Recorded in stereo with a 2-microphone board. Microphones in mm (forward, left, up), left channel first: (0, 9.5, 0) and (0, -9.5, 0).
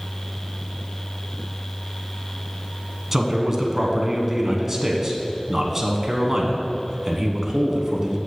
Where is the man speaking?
15° right (ahead or behind), 1.3 m.